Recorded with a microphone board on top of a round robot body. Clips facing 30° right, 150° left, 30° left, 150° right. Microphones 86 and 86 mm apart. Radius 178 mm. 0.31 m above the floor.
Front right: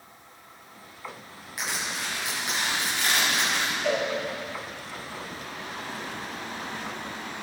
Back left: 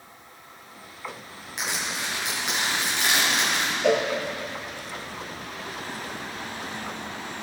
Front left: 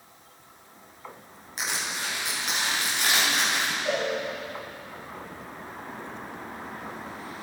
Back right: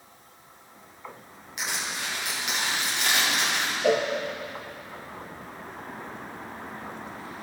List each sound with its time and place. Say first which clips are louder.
1.6 s crushing: back left 1 dB, front left 1 dB; 85° left, 6 m
3.8 s a cowbell: back left 6 dB, back right 7 dB; straight behind, 1.5 m